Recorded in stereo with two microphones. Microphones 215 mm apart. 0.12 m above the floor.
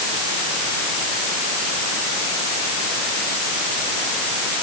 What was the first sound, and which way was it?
Only background noise.